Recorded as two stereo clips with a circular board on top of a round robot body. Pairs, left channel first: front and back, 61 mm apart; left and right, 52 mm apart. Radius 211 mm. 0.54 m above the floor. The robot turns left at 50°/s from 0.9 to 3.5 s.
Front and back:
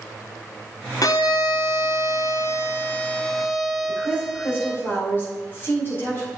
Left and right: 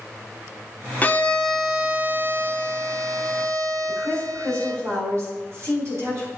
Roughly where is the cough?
I don't hear a cough.